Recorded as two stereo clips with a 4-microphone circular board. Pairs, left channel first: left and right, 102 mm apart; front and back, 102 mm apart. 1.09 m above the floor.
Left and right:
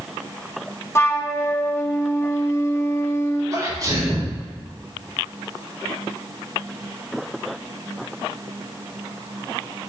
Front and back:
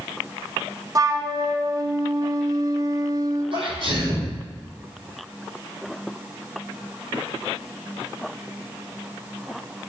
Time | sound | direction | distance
0.9 | a flute | 145° left | 0.7 m
3.5 | a sneeze | 145° right | 4 m